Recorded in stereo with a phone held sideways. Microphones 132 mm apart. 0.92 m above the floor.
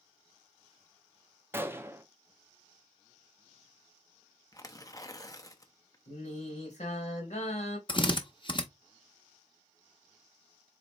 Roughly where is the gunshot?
Centre.